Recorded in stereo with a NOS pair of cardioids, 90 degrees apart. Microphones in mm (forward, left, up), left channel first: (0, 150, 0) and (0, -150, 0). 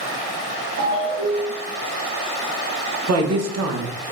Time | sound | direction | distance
0.8 | a ringtone | 65° right | 1.3 m
3.1 | a woman speaking | 55° right | 1.1 m